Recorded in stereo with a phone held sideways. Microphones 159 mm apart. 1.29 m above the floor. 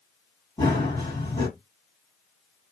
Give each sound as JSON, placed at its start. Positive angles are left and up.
{"t": 0.6, "sound": "running footsteps", "side_deg": 20, "distance_m": 2.0}